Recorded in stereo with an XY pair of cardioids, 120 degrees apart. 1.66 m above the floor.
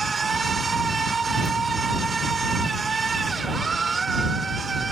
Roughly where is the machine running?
Ahead right.